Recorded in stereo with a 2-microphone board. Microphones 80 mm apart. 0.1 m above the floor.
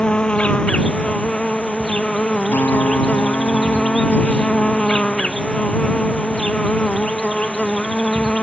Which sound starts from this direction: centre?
An insect, at 0.0 s.